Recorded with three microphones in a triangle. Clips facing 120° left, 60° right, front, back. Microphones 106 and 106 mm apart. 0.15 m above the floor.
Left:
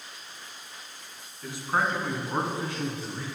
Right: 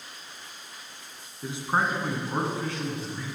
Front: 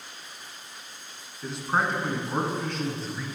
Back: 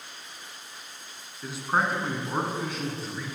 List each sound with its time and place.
1.4 s a man speaking: 95° right, 2.0 m; by 3.2 s 105° left, 2 m